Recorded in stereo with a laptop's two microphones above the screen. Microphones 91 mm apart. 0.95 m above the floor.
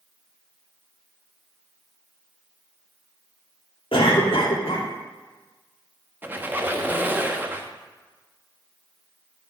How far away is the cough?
About 2 m.